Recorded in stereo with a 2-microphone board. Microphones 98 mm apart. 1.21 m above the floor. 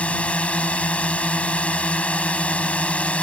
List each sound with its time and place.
0.0 s a drone: 10° left (ahead or behind)